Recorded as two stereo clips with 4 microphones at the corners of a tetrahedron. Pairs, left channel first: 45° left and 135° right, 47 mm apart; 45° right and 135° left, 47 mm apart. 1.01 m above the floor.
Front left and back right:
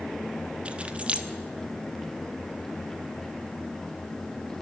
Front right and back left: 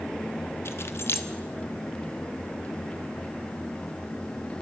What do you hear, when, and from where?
0.7 s keys jangling: 70° right, 1.2 m